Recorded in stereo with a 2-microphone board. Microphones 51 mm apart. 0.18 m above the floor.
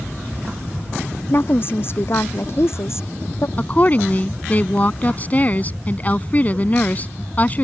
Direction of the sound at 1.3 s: 45° left (ahead or behind).